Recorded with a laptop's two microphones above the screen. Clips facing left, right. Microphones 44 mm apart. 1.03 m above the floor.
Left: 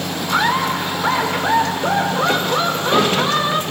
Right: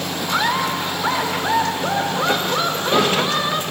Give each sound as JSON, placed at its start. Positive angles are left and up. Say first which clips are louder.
{"t": 0.3, "sound": "laughter", "louder": "left 3 dB", "side_deg": 10, "distance_m": 3.0}